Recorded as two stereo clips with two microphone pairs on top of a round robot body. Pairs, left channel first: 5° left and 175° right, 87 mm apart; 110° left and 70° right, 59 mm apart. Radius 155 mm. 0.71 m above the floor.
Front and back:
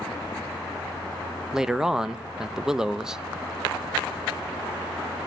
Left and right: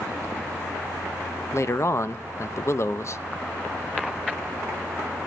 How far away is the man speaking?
About 1.0 m.